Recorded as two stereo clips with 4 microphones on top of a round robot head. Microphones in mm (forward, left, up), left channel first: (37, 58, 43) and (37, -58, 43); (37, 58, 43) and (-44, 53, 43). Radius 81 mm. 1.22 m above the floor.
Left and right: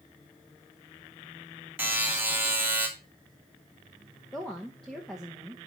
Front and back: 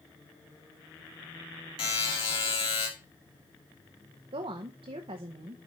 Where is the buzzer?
15° right, 2.5 m.